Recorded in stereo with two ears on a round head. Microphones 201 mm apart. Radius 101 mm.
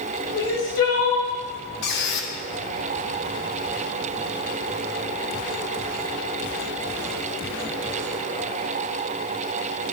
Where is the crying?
65° left (ahead or behind), 3.5 m.